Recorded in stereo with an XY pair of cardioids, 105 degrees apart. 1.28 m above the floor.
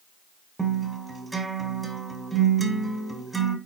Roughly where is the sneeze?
No sneeze in this recording.